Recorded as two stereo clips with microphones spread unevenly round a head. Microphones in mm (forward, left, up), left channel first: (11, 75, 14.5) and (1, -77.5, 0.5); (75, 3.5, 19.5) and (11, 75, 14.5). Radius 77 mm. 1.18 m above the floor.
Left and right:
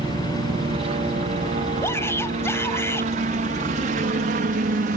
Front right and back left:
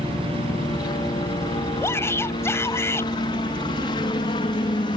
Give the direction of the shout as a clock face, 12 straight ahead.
12 o'clock.